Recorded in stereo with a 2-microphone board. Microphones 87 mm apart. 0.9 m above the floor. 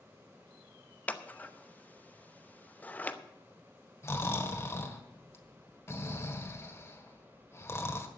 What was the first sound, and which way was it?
Scissors, 20° left (ahead or behind).